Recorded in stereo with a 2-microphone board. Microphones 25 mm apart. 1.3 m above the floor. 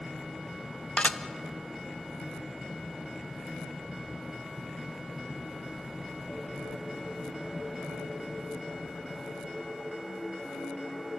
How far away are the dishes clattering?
About 0.7 m.